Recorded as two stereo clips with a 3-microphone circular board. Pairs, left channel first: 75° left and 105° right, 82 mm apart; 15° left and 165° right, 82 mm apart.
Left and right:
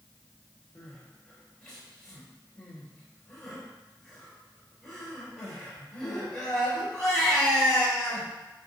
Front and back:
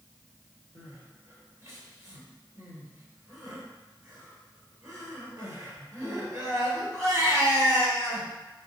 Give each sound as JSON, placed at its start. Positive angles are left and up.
{"t": 0.8, "sound": "crying", "azimuth_deg": 155, "distance_m": 1.4}